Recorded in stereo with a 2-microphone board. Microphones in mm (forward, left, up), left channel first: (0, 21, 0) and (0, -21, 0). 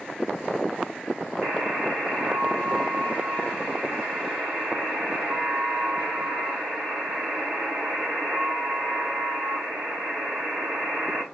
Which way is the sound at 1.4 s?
50° right (ahead or behind).